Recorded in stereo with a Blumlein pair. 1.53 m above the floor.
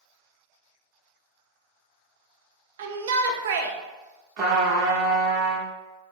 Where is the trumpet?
35° right, 0.8 m.